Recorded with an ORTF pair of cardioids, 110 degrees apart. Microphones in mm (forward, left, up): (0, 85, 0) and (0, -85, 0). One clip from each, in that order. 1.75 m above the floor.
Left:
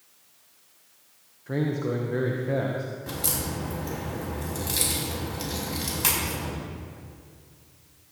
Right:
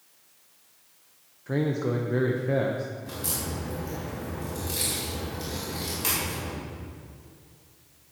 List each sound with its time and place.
1.5 s a man speaking: 10° right, 1.2 m
3.1 s a crack: 40° left, 5 m